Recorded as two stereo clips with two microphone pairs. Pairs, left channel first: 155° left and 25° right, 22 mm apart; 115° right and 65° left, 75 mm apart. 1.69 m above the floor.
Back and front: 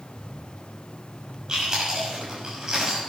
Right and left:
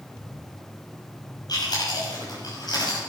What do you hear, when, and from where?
1.5 s chewing: 90° right, 6 m